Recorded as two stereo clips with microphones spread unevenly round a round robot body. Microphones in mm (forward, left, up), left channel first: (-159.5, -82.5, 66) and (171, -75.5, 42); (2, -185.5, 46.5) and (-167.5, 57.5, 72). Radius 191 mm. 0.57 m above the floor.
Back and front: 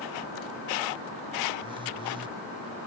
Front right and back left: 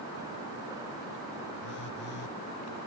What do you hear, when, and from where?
1.6 s a phone buzzing: 75° right